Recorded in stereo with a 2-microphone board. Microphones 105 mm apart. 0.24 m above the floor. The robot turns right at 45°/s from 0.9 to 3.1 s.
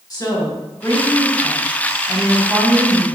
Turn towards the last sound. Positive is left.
turn(degrees=-140)